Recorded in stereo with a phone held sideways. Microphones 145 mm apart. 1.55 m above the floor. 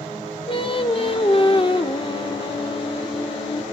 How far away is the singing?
About 1.1 m.